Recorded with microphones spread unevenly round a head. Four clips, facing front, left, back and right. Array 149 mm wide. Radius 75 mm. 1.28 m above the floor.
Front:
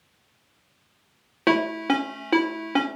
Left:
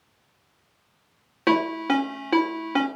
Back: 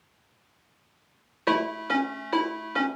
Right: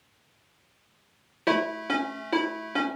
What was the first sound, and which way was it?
A ringtone, 20° left.